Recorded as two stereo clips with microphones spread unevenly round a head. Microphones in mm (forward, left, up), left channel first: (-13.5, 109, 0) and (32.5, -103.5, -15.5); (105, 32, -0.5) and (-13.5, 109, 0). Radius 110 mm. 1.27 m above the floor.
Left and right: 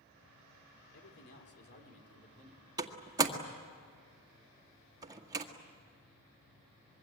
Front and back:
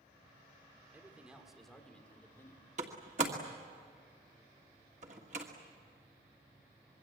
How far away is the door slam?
About 1.7 m.